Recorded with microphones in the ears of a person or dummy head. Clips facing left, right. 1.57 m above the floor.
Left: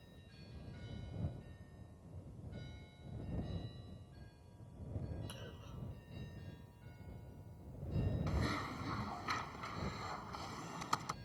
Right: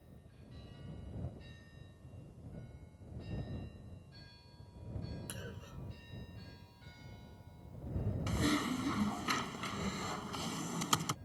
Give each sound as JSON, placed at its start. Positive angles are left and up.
{"t": 5.3, "sound": "a clunk", "side_deg": -30}
{"t": 8.3, "sound": "typing on a keyboard", "side_deg": -45}